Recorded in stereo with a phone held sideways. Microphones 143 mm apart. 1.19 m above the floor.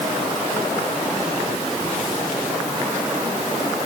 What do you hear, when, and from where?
Only background noise.